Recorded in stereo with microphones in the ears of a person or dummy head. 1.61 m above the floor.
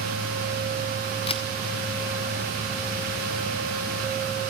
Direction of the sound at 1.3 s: 30° left (ahead or behind).